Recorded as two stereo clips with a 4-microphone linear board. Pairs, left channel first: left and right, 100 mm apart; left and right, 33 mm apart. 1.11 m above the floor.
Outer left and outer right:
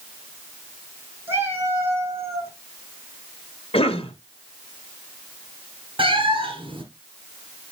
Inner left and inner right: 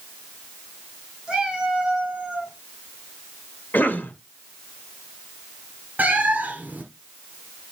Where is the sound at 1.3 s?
20° right (ahead or behind), 2.5 m; by 2.5 s 25° right (ahead or behind), 1.6 m.